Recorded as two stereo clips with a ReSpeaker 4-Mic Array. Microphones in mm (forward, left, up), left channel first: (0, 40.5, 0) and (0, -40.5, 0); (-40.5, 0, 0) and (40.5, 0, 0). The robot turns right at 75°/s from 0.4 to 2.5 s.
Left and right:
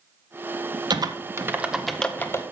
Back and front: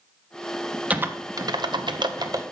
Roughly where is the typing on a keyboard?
Right.